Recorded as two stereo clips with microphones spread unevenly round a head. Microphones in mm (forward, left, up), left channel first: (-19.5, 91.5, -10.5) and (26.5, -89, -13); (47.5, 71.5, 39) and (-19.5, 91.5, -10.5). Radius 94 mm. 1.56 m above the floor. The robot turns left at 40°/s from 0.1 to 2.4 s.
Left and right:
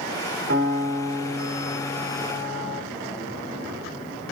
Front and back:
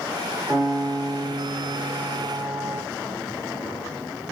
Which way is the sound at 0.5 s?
105° right.